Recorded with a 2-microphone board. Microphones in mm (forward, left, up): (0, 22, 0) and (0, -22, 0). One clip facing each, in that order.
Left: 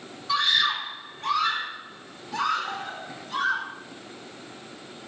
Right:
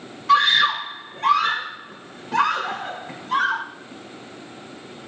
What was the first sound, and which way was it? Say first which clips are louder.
A scream: right 7 dB; 70° right (ahead or behind).